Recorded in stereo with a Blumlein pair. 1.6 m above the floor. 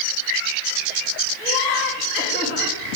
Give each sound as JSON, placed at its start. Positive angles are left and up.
{"t": 1.4, "sound": "laughter", "azimuth_deg": 25, "distance_m": 2.5}